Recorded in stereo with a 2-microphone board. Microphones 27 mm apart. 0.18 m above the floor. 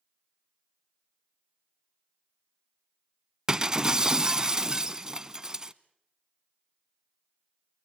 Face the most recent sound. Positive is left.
turn(degrees=-25)  # may be behind; listen again after turning